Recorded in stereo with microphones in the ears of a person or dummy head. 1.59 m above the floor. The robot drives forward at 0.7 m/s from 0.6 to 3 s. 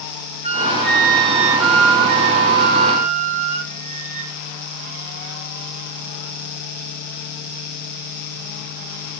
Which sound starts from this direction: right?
A flute, at 0.4 s.